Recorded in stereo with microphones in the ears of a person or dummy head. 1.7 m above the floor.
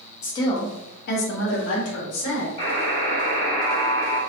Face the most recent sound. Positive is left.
turn(degrees=35)  # may be behind; listen again after turning